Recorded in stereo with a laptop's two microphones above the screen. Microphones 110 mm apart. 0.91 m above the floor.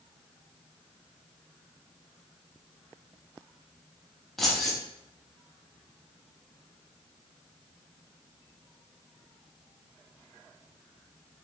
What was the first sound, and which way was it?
Keys jangling, centre (ahead or behind).